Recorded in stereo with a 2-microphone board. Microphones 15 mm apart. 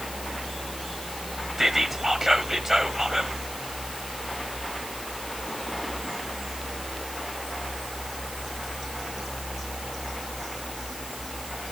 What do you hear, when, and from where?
1.6 s whispering: 25° right (ahead or behind), 1.2 m